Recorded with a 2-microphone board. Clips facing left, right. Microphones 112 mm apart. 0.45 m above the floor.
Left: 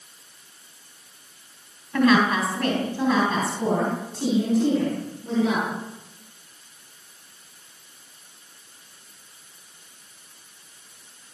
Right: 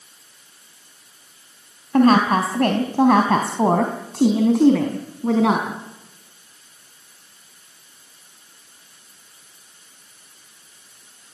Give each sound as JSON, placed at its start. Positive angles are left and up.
{"t": 1.9, "sound": "a woman speaking", "side_deg": -40, "distance_m": 3.0}